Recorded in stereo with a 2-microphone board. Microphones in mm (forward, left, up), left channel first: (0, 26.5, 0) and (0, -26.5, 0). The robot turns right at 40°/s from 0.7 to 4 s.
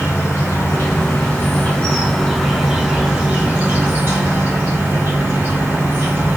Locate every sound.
0.0 s an insect: 105° left, 1.6 m; by 6.4 s 125° right, 1.6 m